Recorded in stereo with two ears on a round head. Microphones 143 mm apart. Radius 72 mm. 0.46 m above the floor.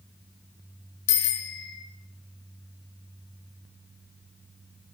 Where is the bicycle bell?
75° left (ahead or behind), 3.5 m.